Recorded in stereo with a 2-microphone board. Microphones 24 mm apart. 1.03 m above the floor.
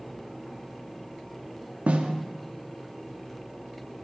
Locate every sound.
1.9 s a snare drum: 70° right (ahead or behind), 1.0 m